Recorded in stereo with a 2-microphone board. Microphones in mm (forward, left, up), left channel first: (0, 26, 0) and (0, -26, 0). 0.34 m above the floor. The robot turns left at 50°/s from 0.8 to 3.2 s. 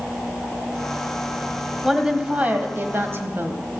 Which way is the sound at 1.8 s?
5° right.